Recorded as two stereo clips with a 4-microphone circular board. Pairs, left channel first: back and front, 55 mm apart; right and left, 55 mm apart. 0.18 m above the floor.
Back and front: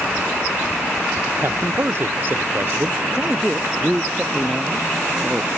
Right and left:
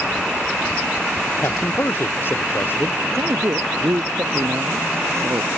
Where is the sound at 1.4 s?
50° right.